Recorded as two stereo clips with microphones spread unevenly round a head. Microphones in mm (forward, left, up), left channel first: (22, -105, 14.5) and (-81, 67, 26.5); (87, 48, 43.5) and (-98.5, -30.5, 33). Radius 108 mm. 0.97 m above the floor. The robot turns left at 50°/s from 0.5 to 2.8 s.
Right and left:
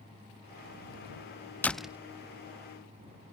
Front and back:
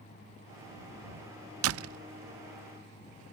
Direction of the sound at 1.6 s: 140° right.